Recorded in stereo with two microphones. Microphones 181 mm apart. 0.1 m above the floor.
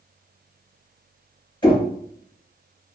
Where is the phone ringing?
No phone ringing in this recording.